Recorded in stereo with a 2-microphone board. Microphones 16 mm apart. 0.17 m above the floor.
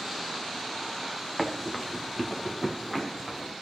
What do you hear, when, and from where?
1.4 s running footsteps: 10° right (ahead or behind), 1.9 m; by 3.5 s 15° right (ahead or behind), 3 m